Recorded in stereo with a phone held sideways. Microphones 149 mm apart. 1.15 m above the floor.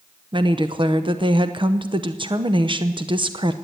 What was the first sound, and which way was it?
A woman speaking, 35° right (ahead or behind).